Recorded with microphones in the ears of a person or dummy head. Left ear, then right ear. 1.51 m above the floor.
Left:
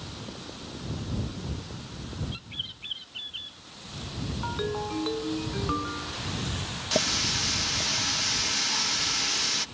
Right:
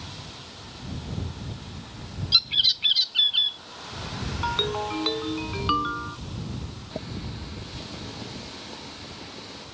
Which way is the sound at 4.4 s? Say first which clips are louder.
Right 6 dB; 70° right (ahead or behind).